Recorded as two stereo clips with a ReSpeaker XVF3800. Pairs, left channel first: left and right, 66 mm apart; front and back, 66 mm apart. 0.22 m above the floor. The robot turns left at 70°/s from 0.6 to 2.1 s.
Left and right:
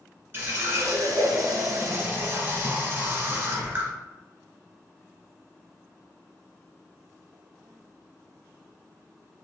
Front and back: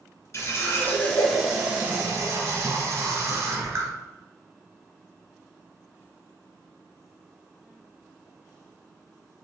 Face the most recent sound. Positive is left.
turn(degrees=-140)